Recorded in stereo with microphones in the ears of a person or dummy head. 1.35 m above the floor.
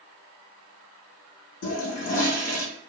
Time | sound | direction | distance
1.6 | a toilet flushing | 80° left | 1.4 m